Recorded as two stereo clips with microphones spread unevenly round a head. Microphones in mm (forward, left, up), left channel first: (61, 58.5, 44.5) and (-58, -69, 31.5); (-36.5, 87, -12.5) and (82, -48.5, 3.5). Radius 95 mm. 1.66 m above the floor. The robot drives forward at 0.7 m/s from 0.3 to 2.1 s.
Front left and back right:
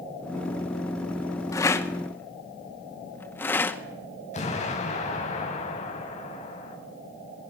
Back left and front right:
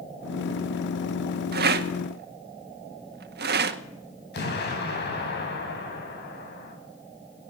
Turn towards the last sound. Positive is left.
turn(degrees=100)